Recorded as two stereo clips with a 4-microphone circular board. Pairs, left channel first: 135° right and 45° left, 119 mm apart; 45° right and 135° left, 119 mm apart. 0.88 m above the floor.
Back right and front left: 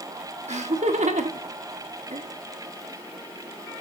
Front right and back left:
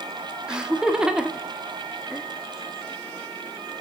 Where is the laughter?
50° left, 1.4 m.